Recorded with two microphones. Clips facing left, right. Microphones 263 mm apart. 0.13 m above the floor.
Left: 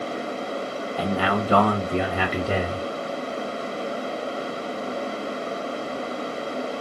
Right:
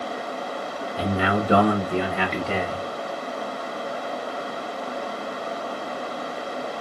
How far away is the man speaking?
About 1.2 m.